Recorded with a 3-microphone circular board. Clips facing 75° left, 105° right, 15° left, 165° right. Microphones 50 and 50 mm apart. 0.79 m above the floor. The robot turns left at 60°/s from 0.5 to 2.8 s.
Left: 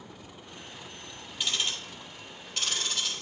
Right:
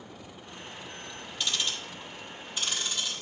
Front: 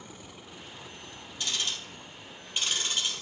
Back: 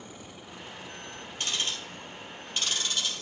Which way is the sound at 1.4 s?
155° left.